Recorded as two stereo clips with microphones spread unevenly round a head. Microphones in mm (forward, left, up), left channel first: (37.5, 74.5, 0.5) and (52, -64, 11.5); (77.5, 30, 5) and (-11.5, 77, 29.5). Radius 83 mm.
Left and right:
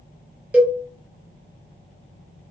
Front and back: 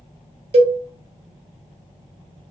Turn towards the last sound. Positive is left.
turn(degrees=-170)